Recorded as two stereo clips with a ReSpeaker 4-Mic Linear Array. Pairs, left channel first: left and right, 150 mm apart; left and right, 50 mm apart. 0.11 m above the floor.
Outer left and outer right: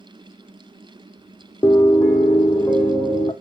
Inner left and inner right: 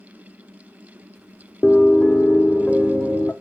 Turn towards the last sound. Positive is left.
turn(degrees=20)  # may be behind; listen again after turning